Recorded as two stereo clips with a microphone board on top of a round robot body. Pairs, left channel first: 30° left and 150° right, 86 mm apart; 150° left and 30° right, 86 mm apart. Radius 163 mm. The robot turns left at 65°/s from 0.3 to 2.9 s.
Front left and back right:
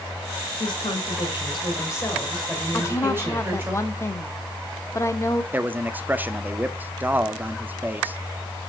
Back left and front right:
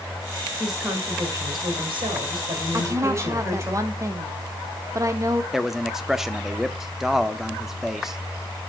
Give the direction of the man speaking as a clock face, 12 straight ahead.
4 o'clock.